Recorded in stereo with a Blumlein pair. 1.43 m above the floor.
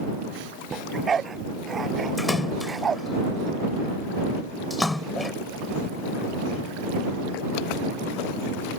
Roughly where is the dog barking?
Ahead.